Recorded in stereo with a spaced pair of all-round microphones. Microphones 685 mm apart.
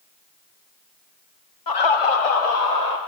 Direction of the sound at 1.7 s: 30° left (ahead or behind).